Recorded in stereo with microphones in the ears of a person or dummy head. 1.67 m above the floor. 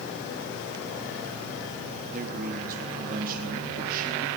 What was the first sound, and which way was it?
A man speaking, 50° right (ahead or behind).